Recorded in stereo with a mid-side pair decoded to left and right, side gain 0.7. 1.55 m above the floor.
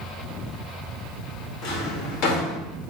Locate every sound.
1.6 s a drawer: 55° left, 1.9 m